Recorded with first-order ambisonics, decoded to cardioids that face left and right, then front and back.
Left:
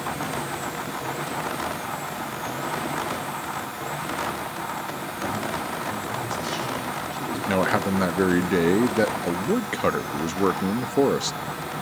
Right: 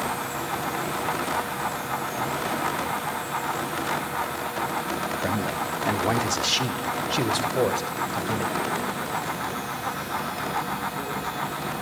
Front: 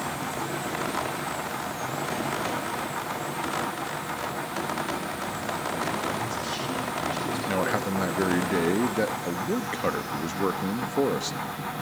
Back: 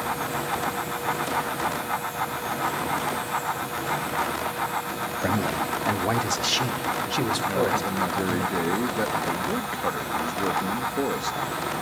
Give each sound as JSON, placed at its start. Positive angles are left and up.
{"t": 5.2, "sound": "a man speaking", "azimuth_deg": -160, "distance_m": 1.1}
{"t": 7.5, "sound": "a man speaking", "azimuth_deg": 80, "distance_m": 0.8}